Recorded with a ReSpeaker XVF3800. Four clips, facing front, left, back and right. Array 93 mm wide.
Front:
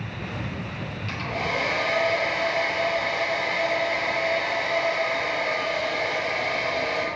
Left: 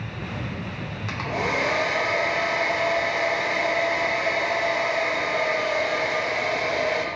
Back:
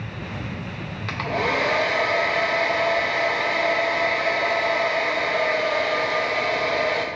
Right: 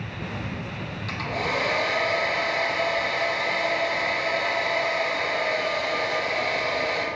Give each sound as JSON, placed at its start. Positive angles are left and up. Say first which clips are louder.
{"t": 1.1, "sound": "a hair dryer", "louder": "left 2 dB, back 5 dB", "azimuth_deg": 160, "distance_m": 0.5}